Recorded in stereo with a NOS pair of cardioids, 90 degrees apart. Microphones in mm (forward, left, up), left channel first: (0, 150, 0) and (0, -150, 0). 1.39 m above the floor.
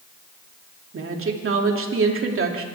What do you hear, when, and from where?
0.9 s a woman speaking: 45° right, 3 m